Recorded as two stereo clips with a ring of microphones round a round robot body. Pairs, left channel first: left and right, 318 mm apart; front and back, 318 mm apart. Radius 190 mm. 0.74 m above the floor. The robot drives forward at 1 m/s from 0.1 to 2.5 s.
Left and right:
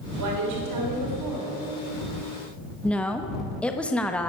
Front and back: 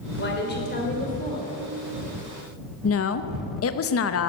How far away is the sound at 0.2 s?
About 4 m.